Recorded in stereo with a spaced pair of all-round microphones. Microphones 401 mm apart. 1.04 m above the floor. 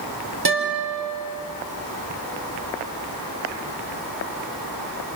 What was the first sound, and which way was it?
A guitar, 70° right (ahead or behind).